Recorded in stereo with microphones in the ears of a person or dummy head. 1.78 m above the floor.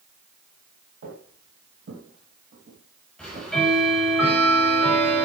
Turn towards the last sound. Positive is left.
turn(degrees=0)  # may be behind; listen again after turning